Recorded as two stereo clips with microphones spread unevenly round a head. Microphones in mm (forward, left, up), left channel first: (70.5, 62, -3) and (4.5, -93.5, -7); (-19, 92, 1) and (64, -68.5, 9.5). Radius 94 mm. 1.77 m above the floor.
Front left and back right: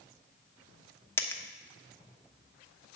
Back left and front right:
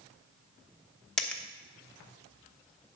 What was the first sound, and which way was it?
A dropped coin, 35° left.